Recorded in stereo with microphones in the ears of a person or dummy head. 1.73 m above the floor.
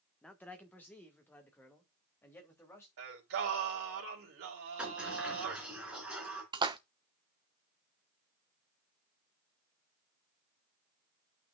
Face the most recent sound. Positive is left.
turn(degrees=-20)  # may be behind; listen again after turning